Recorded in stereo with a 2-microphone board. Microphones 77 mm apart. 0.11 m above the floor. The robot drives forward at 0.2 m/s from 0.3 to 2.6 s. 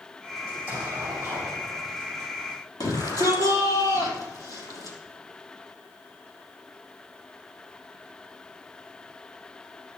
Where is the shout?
50° left (ahead or behind), 4.5 m.